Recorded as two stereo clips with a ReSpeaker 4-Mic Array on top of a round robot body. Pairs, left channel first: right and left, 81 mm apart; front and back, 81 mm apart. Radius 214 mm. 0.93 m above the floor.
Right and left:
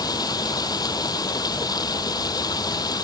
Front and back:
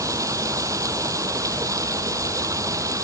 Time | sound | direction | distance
0.0 | running water | 130° right | ?